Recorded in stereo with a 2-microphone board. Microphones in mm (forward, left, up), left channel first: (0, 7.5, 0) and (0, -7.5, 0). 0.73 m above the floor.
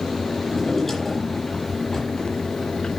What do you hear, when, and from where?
0.5 s a drawer: 25° left (ahead or behind), 9 m